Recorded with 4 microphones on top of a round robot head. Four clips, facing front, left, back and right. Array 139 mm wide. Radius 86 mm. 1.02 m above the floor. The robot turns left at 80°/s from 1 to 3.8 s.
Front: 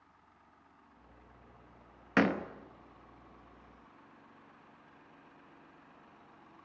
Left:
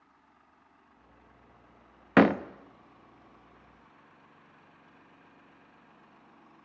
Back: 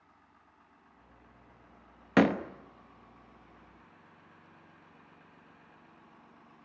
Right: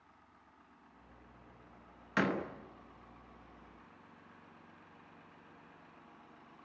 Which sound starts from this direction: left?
A door slam, at 2.2 s.